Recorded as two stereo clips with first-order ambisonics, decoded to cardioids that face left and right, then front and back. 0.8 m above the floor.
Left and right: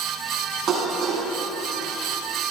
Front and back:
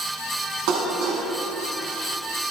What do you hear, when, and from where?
0.7 s dishes clattering: 150° right, 5.5 m